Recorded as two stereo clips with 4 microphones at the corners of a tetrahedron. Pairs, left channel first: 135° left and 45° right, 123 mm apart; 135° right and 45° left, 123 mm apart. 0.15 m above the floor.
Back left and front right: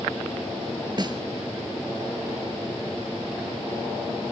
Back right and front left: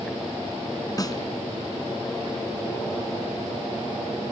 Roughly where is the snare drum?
Right.